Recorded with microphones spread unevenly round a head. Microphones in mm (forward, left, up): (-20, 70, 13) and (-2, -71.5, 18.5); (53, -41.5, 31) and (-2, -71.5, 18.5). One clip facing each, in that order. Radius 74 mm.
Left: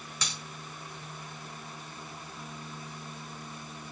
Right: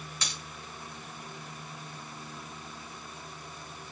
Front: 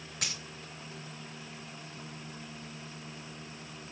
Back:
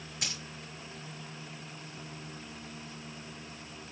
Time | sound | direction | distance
0.2 | a dropped coin | 95° left | 4.5 m